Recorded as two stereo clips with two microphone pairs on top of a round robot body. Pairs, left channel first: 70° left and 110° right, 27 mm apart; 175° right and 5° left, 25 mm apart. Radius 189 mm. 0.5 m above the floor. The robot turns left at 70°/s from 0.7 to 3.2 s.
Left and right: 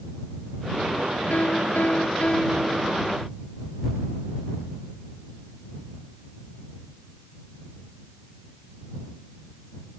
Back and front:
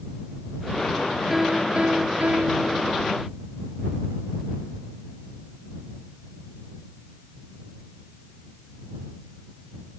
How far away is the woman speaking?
I don't hear a woman speaking.